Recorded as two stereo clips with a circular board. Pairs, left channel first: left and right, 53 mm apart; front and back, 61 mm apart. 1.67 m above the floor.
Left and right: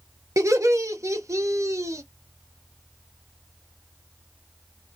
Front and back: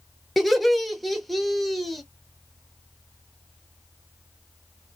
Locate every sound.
0.4 s laughter: 90° right, 0.7 m